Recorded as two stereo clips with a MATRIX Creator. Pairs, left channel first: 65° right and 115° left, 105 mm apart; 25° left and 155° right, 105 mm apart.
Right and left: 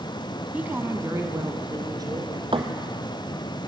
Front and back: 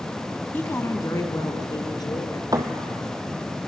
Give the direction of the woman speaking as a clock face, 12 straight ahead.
10 o'clock.